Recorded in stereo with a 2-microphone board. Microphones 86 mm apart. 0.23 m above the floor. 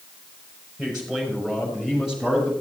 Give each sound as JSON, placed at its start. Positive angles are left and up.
{"t": 0.8, "sound": "a man speaking", "side_deg": -5, "distance_m": 5.5}